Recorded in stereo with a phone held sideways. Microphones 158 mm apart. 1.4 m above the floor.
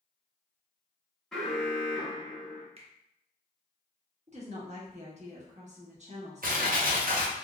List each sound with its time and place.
1.3 s an alarm: 5° left (ahead or behind), 0.8 m
2.8 s a finger snap: 40° right (ahead or behind), 0.6 m
4.3 s a woman speaking: 45° right (ahead or behind), 1.0 m
6.4 s crushing: 65° right (ahead or behind), 0.8 m